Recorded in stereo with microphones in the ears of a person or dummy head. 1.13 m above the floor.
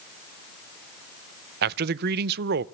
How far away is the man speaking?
About 0.5 m.